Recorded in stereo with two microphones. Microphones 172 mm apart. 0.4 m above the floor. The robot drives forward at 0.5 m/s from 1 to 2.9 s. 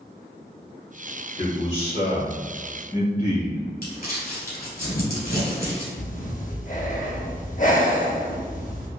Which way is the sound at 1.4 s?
40° left (ahead or behind).